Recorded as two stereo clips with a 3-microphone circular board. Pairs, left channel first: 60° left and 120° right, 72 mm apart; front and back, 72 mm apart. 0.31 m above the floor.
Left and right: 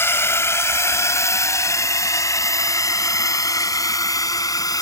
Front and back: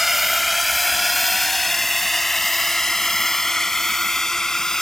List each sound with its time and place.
0.0 s a drone: 95° left; by 4.8 s 80° left